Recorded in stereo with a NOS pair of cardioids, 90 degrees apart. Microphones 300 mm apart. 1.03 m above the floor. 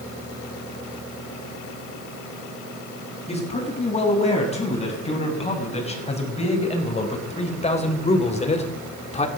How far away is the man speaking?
About 8 m.